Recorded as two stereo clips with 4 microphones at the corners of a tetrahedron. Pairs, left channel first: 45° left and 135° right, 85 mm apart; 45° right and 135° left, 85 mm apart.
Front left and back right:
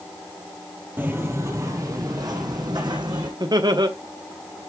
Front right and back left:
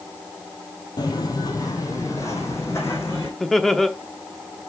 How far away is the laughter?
About 0.8 m.